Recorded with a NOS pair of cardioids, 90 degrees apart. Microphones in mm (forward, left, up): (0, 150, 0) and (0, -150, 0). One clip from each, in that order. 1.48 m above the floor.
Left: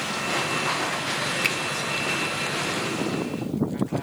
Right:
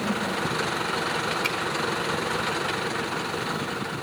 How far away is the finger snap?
About 1.8 m.